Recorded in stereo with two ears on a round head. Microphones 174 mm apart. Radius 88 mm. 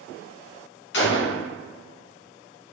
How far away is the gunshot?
About 0.9 m.